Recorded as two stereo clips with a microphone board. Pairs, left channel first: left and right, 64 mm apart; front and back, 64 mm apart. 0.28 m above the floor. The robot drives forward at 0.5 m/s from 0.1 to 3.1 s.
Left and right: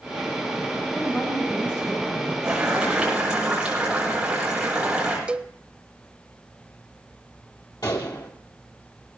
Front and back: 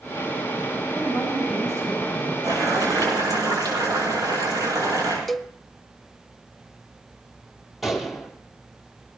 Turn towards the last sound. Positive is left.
turn(degrees=90)